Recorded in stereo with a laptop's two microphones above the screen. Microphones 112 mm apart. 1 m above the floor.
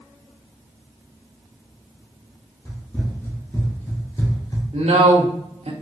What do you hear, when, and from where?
2.6 s running footsteps: 15° left (ahead or behind), 2.0 m; by 4.6 s 35° left (ahead or behind), 1.1 m
4.7 s a woman speaking: 70° right (ahead or behind), 1.1 m